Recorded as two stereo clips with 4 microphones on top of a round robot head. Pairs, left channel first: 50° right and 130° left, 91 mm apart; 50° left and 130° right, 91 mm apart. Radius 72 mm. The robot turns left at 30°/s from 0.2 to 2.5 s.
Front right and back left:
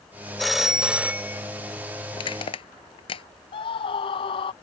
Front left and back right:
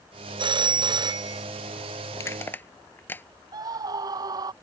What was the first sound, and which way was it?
A phone ringing, 135° right.